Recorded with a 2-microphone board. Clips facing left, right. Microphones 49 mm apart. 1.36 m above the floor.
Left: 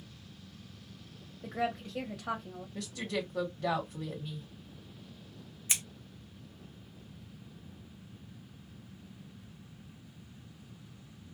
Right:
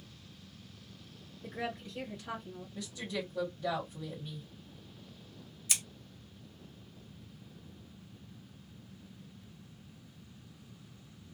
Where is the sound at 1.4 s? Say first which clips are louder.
Left 5 dB; 80° left, 1.1 m.